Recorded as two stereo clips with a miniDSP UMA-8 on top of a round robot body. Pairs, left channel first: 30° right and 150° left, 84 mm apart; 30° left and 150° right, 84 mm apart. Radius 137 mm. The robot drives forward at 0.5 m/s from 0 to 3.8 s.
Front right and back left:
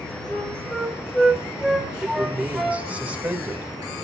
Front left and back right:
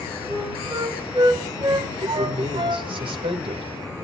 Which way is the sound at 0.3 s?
110° right.